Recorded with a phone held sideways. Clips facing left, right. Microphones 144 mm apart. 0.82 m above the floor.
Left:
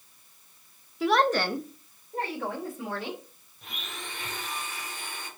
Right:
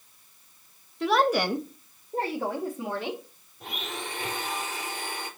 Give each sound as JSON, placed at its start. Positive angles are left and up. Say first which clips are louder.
{"t": 1.0, "sound": "a woman speaking", "louder": "right 1 dB", "side_deg": 5, "distance_m": 0.7}
{"t": 3.6, "sound": "a blender", "louder": "right 6 dB", "side_deg": -70, "distance_m": 2.5}